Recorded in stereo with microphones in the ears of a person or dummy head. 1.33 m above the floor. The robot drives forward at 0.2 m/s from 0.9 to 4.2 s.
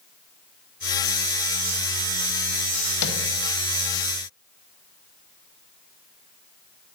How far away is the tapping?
About 1.0 m.